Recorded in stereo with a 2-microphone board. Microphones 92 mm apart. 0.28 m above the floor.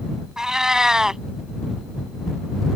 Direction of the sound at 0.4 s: 5° right (ahead or behind).